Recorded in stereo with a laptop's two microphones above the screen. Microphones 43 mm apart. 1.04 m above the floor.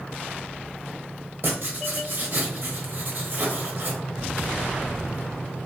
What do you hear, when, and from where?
1.4 s writing: 45° right (ahead or behind), 0.8 m